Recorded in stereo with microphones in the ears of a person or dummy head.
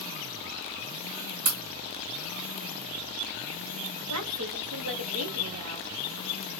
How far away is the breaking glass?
About 2.5 m.